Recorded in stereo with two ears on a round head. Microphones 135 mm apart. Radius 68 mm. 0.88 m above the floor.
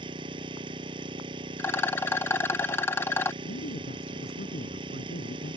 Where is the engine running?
30° right (ahead or behind).